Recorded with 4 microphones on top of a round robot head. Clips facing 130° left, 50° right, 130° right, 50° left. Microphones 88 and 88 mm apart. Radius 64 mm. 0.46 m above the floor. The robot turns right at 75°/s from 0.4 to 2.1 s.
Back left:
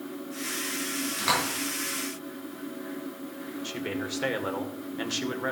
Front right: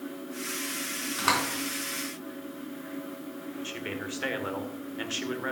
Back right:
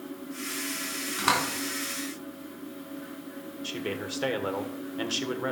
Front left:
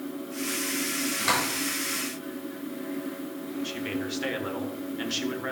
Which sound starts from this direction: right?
A door slam, at 1.2 s.